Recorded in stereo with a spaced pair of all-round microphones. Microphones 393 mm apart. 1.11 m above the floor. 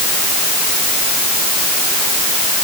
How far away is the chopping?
I don't hear chopping.